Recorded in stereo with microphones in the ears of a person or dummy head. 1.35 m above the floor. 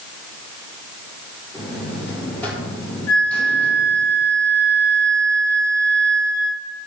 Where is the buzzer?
10° left (ahead or behind), 4 m.